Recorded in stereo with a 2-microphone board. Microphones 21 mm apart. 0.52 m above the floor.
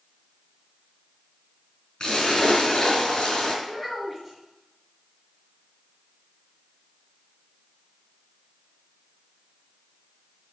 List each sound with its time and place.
2.0 s a splash: 45° left (ahead or behind), 5 m
3.6 s a child speaking: 10° left (ahead or behind), 5.5 m